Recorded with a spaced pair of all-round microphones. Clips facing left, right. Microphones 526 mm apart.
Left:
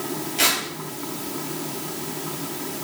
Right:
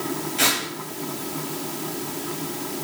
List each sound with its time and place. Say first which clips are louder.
0.4 s tearing paper: right 1 dB; 70° right (ahead or behind), 4 m